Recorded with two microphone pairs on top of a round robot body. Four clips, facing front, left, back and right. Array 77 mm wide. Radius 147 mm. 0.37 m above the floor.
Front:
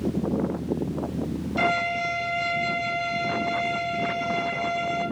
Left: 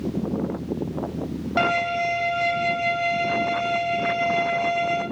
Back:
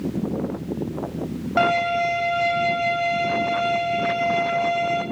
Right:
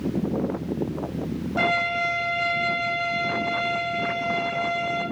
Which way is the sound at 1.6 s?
150° left.